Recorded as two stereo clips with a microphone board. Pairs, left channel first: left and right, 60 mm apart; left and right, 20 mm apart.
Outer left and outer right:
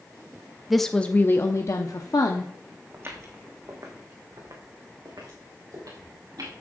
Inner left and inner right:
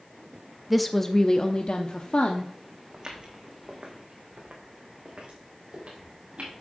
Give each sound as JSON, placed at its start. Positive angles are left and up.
{"t": 0.7, "sound": "a woman speaking", "side_deg": -5, "distance_m": 0.6}
{"t": 2.9, "sound": "footsteps", "side_deg": -35, "distance_m": 2.5}